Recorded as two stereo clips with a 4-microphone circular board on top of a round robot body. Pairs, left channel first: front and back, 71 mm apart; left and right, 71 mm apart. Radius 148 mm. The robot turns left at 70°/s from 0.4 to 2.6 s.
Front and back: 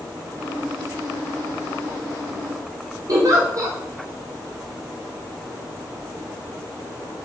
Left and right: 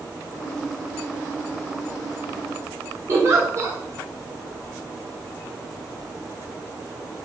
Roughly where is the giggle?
Behind right.